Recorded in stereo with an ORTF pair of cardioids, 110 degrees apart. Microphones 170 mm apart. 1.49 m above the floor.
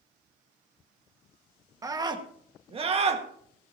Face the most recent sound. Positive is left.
turn(degrees=-40)